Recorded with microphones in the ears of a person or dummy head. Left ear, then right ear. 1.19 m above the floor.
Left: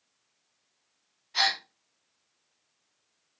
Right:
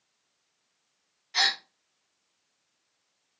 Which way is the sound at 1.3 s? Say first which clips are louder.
Right 1 dB; 55° right (ahead or behind).